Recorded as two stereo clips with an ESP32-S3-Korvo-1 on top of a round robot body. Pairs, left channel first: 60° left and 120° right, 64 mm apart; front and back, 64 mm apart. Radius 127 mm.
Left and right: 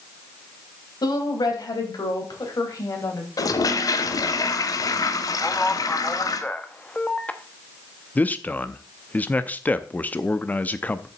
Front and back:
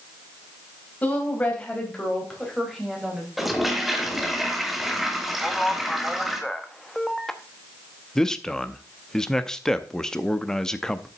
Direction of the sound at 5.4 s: 75° left.